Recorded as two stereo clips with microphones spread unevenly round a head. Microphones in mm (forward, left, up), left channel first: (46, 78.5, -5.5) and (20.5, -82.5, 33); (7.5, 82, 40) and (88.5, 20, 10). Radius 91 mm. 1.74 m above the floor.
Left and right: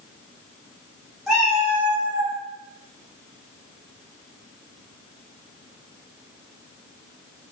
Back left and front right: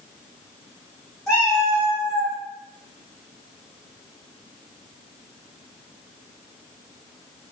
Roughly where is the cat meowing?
Behind.